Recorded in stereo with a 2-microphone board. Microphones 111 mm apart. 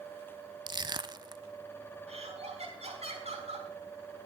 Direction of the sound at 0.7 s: 40° right (ahead or behind).